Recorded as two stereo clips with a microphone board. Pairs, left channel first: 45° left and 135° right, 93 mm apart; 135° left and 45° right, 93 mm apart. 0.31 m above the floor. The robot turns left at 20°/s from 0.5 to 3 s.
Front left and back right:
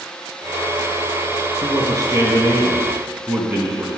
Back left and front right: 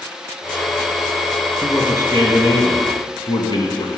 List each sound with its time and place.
1.6 s a man speaking: 175° right, 2.5 m; by 3.9 s 160° left, 2.5 m